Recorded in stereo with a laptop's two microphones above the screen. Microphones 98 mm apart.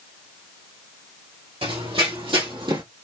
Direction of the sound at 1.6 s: 65° right (ahead or behind).